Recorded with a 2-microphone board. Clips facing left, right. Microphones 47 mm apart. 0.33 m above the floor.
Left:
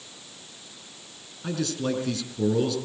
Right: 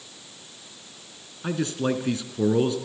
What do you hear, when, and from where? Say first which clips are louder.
1.4 s a man speaking: right 2 dB; 25° right (ahead or behind), 3.5 m